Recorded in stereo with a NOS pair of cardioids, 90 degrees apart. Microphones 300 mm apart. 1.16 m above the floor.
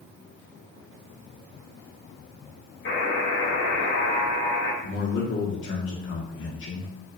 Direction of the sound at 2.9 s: 45° left.